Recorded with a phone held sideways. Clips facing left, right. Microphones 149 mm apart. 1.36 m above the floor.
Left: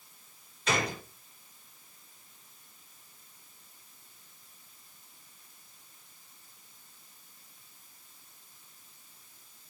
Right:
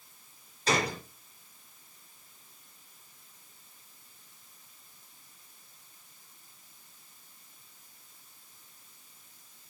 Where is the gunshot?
35° right (ahead or behind), 4 m.